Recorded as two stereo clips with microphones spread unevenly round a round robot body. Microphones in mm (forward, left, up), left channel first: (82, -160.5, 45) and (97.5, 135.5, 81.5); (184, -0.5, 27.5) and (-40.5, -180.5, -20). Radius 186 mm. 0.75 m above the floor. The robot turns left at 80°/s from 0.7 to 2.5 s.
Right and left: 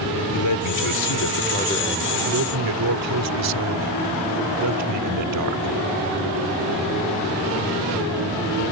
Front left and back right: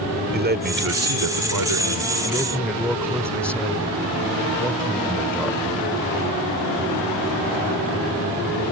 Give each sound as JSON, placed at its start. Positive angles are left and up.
{"t": 0.3, "sound": "a man speaking", "azimuth_deg": -90}